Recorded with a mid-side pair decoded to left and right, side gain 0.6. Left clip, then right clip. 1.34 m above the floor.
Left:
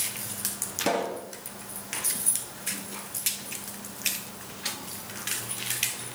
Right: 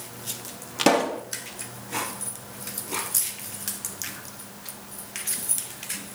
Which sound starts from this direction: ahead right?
A pop, at 0.8 s.